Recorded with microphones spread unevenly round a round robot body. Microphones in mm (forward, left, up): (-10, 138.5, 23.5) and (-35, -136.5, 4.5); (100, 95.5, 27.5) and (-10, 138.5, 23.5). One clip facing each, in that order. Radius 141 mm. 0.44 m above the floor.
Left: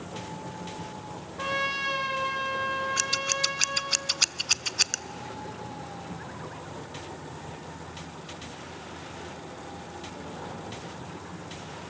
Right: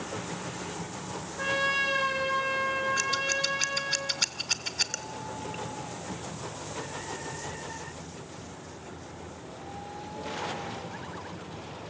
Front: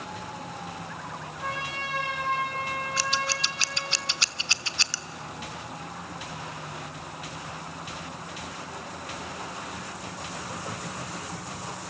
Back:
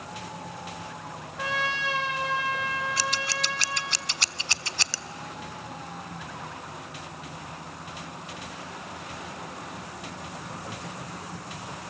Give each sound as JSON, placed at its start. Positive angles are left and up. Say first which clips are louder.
{"t": 1.4, "sound": "a trumpet", "louder": "right 1 dB, back 5 dB", "azimuth_deg": 170, "distance_m": 4.0}
{"t": 3.0, "sound": "scissors", "louder": "right 1 dB, front 1 dB", "azimuth_deg": 150, "distance_m": 0.7}